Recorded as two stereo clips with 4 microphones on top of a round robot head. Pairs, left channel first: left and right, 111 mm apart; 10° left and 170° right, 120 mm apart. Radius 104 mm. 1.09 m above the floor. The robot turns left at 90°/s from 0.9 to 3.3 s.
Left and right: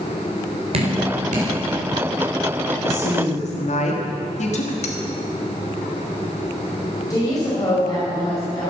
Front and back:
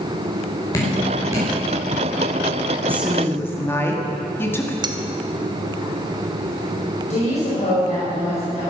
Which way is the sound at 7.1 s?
35° left.